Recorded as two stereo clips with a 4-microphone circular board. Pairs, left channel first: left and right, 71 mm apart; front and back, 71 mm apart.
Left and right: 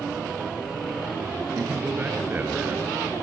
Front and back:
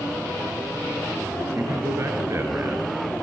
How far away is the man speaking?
About 2.5 m.